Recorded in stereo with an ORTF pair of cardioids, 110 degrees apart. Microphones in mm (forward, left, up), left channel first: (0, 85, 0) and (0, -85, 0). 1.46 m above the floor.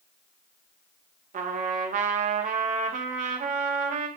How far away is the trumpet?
About 2 m.